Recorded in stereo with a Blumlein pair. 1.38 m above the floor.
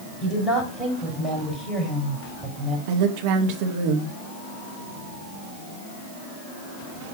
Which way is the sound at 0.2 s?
10° left.